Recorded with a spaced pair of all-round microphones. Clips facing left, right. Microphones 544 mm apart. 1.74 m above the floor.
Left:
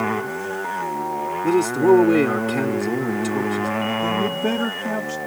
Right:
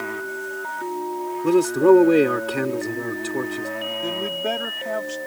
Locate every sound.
0.0 s a motorcycle: 80° left; by 5.3 s 85° left
1.4 s a man speaking: 5° left (ahead or behind)
4.0 s a man speaking: 70° left (ahead or behind)